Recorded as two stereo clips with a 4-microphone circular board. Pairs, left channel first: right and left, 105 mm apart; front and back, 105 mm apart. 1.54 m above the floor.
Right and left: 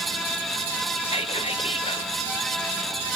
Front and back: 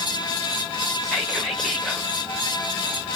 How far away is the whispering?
About 0.6 m.